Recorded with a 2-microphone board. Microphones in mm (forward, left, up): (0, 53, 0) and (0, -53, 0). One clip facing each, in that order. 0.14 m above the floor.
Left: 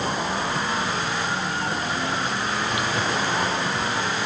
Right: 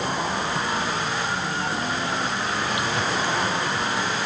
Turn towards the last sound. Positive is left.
No sound to turn to.